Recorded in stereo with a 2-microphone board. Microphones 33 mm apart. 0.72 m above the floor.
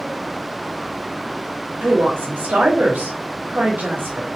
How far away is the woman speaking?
About 1.2 m.